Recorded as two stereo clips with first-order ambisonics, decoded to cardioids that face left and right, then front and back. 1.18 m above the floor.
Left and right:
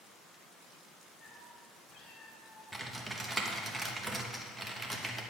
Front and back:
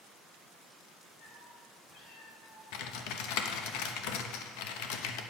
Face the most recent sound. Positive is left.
turn(degrees=-5)